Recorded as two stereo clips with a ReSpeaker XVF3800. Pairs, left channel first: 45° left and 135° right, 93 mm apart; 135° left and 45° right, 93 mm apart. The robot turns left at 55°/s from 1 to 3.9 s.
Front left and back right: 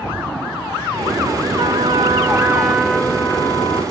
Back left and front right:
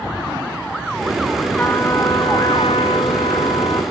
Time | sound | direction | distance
1.6 | a trumpet | 155° right | 1.2 m